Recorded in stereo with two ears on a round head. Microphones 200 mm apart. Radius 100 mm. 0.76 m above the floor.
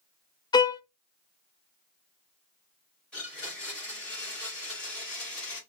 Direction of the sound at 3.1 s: 5° left (ahead or behind).